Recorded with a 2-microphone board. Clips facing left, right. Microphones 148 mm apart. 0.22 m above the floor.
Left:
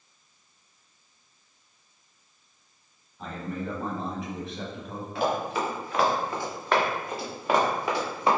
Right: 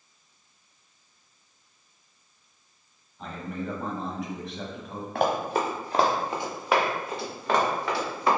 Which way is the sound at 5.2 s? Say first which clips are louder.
Right 2 dB; 55° right (ahead or behind).